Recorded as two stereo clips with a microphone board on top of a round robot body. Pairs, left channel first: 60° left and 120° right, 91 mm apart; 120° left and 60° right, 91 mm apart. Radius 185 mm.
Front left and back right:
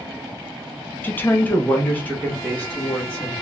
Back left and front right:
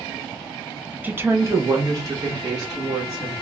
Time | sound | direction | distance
1.0 | a woman speaking | straight ahead | 0.8 m